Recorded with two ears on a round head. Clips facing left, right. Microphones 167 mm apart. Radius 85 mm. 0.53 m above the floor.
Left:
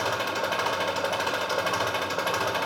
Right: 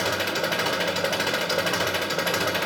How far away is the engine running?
About 1.0 m.